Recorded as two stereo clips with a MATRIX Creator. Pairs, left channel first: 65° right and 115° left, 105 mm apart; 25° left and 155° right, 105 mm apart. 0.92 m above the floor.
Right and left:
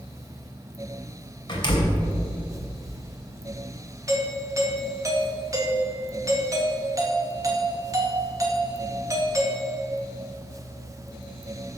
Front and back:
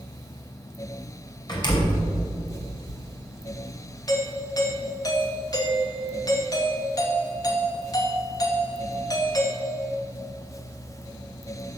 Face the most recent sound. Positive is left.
turn(degrees=65)